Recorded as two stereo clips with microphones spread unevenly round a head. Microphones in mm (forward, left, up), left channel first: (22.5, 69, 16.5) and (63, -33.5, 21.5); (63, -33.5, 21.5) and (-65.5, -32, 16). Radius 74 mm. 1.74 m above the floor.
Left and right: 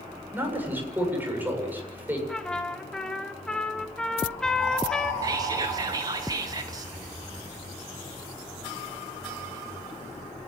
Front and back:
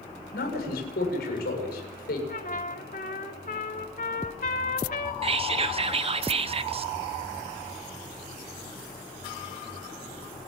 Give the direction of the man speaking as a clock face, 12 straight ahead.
12 o'clock.